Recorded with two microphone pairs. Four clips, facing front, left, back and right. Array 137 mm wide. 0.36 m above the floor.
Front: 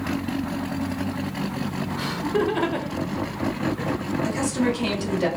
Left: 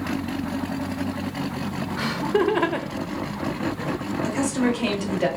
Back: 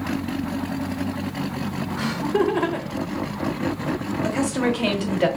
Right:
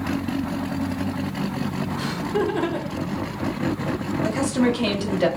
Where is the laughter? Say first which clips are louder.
Left 3 dB, back 3 dB; 115° left, 1.3 m; by 4.0 s 10° left, 1.3 m.